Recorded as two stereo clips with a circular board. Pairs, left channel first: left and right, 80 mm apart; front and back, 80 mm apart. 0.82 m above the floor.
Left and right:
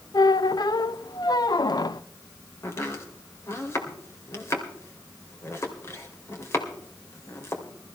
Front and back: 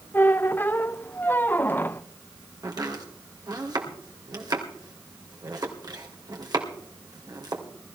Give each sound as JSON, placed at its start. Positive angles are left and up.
{"t": 0.1, "sound": "a squeak", "azimuth_deg": 65, "distance_m": 0.5}
{"t": 2.6, "sound": "chopping", "azimuth_deg": 145, "distance_m": 2.5}